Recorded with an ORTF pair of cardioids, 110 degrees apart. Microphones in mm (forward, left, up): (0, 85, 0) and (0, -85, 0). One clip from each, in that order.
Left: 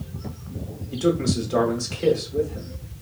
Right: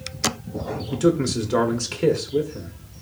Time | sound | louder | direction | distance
0.9 | a man speaking | right 2 dB | 40° right | 0.8 m